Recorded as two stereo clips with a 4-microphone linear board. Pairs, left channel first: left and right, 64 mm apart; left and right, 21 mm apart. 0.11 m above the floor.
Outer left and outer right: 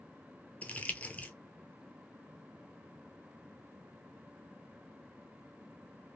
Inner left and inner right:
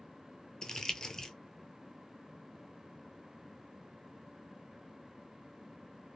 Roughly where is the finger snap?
No finger snap in this recording.